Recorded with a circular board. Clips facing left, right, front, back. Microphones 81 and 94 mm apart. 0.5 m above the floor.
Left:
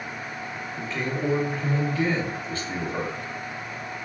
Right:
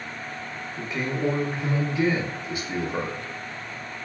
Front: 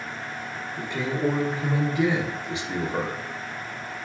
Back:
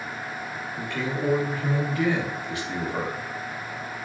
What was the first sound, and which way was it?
A man speaking, 35° right.